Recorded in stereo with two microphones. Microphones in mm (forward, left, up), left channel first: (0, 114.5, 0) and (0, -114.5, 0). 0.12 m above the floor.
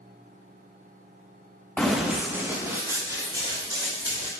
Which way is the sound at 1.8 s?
5° left (ahead or behind).